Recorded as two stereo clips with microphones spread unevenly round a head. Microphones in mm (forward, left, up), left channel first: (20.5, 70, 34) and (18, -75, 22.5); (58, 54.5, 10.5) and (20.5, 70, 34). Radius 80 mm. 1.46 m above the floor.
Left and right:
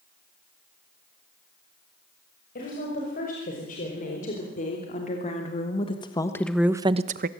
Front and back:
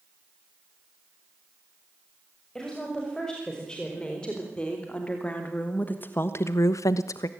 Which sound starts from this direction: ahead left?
A woman speaking, at 2.5 s.